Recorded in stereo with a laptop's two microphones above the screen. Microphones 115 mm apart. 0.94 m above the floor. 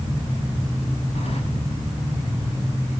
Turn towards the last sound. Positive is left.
turn(degrees=60)  # may be behind; listen again after turning